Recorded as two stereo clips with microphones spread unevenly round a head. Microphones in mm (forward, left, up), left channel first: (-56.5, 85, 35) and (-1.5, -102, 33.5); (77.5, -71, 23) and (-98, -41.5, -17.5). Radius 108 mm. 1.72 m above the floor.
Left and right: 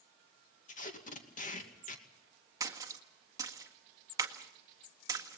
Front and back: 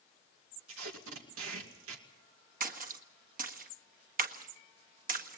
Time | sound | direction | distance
0.7 | tape being pulled | 160° left | 2.5 m
2.6 | a splash | 145° right | 1.7 m